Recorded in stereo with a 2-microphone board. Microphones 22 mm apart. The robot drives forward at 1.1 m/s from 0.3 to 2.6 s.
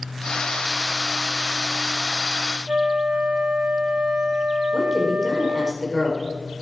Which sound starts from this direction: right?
A flute, at 2.7 s.